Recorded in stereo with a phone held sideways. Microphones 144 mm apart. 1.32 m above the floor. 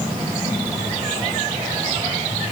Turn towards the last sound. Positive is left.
No sound to turn to.